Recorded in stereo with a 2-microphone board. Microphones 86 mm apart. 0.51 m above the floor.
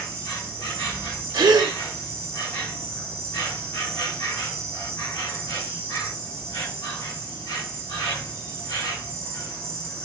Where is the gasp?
55° right (ahead or behind), 0.5 m.